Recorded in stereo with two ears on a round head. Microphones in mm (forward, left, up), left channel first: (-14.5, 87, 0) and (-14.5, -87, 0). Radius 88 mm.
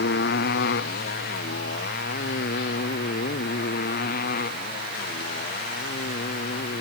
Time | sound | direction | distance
0.0 | a motorcycle | 55° left (ahead or behind) | ?